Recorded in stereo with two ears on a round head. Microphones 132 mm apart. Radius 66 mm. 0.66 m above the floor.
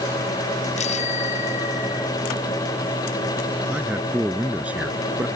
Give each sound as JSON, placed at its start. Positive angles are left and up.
{"t": 0.8, "sound": "a bicycle bell", "side_deg": 50}
{"t": 3.7, "sound": "a man speaking", "side_deg": -10}